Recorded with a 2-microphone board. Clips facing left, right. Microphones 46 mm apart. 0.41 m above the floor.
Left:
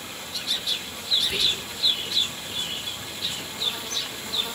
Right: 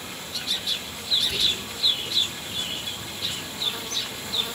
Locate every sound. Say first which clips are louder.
1.2 s whispering: even; 25° left (ahead or behind), 3.5 m